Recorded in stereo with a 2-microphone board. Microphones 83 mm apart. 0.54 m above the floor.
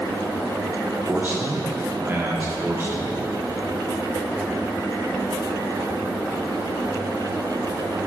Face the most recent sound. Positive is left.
turn(degrees=-25)  # may be behind; listen again after turning